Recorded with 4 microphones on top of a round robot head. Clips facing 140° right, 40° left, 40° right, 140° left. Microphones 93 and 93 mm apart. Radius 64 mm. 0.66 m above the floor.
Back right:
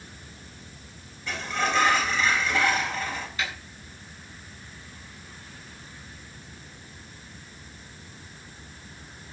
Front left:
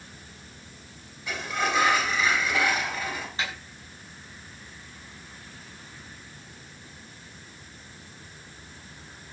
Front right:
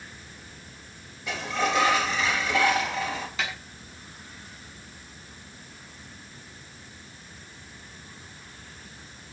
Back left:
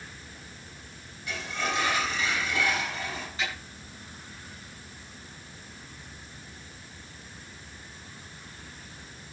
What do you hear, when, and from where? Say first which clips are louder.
1.3 s a sliding door: back right 1 dB, front right 5 dB; 40° right, 4 m
3.4 s a snare drum: even, even; 20° right, 8.5 m